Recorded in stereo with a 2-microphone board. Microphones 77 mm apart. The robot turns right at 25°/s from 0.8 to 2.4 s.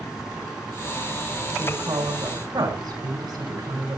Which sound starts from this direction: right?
A woman speaking, at 1.6 s.